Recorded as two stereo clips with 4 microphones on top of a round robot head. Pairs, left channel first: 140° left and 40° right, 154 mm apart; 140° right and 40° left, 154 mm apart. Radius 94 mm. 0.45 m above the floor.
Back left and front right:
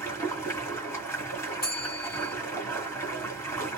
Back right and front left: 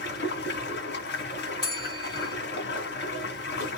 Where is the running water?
145° right, 2 m.